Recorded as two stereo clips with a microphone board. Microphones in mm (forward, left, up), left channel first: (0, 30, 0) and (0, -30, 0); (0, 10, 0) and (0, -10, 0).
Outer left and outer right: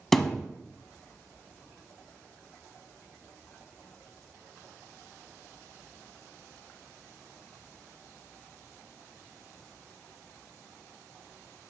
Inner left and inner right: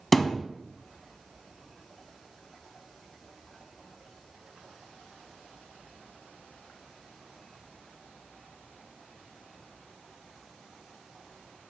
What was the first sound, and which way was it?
A thud, 5° left (ahead or behind).